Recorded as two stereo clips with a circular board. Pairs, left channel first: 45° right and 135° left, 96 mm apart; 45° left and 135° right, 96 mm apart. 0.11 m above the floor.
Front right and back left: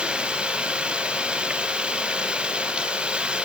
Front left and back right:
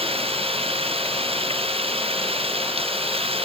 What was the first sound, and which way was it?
Running water, 145° right.